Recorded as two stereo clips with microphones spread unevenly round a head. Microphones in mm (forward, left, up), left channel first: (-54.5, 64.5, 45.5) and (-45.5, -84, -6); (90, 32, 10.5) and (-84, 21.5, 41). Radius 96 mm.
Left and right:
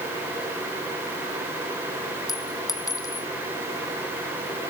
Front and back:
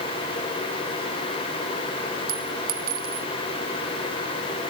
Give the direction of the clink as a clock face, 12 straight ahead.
7 o'clock.